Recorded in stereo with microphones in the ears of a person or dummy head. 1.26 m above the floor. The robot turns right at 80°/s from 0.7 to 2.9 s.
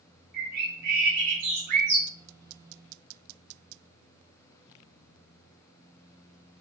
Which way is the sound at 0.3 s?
120° right.